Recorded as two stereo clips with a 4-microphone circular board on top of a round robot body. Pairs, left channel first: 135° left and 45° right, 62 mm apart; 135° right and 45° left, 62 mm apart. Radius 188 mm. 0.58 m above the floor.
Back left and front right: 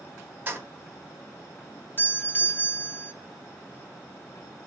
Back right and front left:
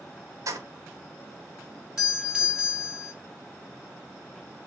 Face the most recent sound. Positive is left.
turn(degrees=115)